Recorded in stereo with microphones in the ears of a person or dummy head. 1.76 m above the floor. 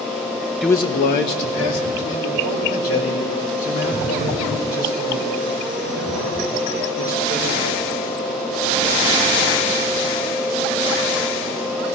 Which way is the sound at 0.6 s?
Centre (ahead or behind).